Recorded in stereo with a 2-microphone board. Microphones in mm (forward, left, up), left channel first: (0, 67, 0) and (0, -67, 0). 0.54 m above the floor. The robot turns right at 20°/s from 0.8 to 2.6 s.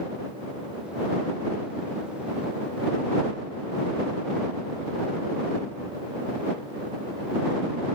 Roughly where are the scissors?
I don't hear scissors.